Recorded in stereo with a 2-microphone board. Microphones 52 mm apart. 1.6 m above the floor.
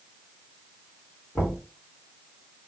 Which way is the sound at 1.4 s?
40° left (ahead or behind).